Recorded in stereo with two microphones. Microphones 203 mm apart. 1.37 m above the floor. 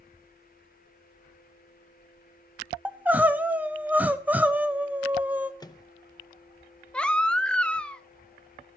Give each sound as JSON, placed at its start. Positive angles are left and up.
{"t": 2.9, "sound": "crying", "side_deg": -10, "distance_m": 0.8}
{"t": 5.6, "sound": "a microwave", "side_deg": 20, "distance_m": 0.6}
{"t": 6.9, "sound": "a baby crying", "side_deg": 5, "distance_m": 0.7}